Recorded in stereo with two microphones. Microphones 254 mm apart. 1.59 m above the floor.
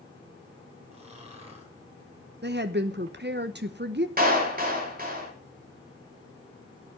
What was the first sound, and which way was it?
Snoring, 25° right (ahead or behind).